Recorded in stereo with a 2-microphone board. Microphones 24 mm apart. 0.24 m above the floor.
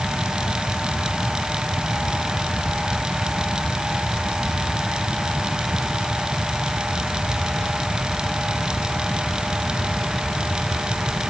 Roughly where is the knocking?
I don't hear knocking.